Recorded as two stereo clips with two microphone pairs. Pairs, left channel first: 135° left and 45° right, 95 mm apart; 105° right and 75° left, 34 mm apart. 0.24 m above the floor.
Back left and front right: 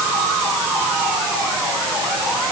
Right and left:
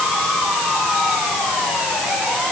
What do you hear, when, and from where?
Only background noise.